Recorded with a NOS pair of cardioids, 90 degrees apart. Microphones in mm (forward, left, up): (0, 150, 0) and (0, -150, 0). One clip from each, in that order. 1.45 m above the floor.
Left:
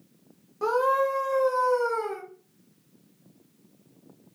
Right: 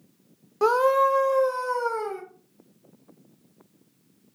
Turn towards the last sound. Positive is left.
turn(degrees=-5)